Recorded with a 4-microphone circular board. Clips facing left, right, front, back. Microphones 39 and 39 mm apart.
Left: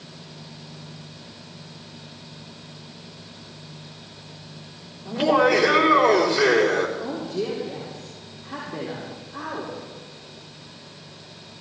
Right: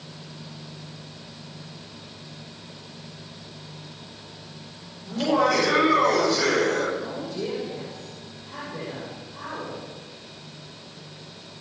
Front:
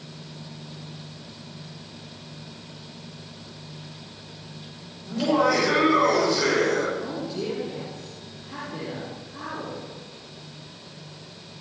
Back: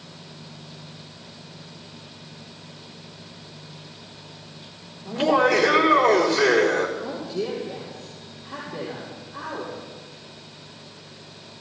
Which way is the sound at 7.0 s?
105° left.